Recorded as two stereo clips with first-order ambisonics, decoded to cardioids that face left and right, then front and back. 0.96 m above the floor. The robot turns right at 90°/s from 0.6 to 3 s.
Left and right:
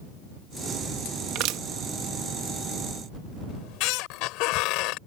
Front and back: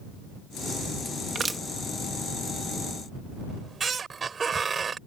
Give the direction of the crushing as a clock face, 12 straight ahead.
4 o'clock.